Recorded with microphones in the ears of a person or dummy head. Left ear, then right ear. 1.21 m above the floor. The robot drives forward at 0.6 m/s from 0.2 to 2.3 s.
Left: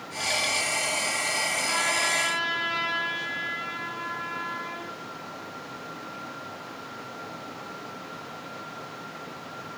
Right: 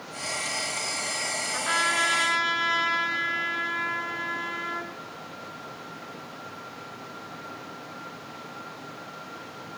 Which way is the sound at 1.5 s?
45° right (ahead or behind).